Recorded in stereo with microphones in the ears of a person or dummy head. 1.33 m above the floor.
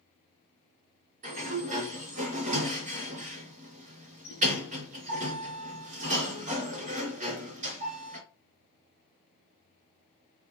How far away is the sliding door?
About 2 m.